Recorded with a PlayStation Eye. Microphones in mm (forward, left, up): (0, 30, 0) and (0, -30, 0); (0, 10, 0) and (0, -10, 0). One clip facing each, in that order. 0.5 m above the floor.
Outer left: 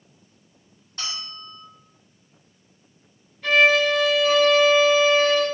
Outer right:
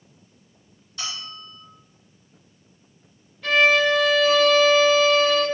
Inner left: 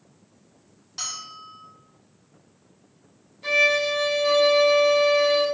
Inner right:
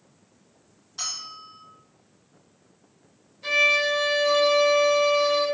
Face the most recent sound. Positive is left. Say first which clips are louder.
# even, even
turn(degrees=0)  # may be behind; listen again after turning